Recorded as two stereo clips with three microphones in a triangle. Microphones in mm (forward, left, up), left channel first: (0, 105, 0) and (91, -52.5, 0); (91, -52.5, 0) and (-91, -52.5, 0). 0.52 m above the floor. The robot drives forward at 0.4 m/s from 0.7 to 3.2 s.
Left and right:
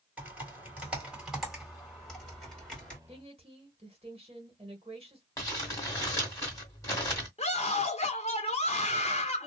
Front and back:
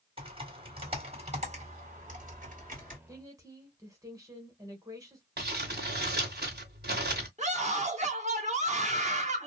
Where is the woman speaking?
110° right, 1.6 m.